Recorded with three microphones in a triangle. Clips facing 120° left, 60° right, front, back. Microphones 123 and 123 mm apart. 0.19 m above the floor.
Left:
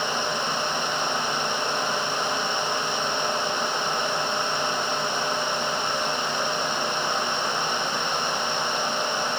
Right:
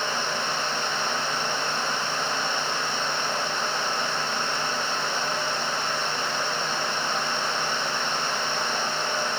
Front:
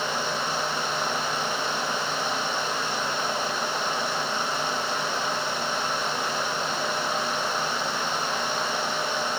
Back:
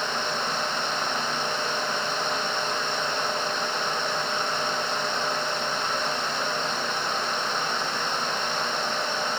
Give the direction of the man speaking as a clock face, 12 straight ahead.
No man speaking in this recording.